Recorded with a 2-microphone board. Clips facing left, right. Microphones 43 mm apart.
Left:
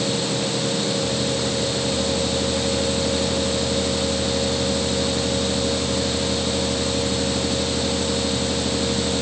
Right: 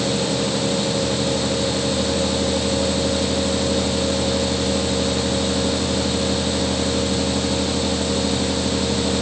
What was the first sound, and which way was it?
Only background noise.